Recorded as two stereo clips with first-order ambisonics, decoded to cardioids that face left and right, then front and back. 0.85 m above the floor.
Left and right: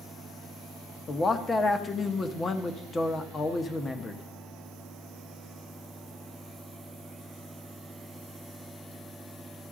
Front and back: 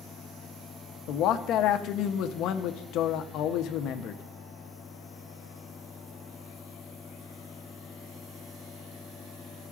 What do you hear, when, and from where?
1.1 s a man speaking: 20° left, 0.7 m